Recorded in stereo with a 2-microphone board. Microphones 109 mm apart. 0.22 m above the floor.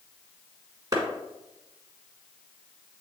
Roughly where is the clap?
Right.